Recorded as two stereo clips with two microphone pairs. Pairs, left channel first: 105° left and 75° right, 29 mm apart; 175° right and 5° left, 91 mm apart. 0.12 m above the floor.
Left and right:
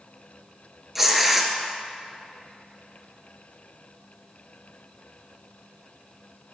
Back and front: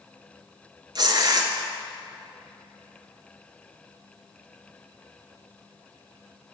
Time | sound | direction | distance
0.9 | tearing paper | 5° left | 0.7 m